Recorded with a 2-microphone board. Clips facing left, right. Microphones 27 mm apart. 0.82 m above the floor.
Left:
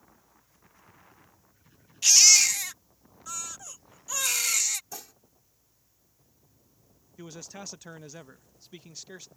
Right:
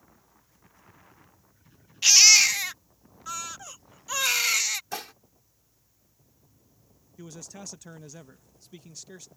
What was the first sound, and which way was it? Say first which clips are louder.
A baby crying: right 2 dB; 30° right (ahead or behind).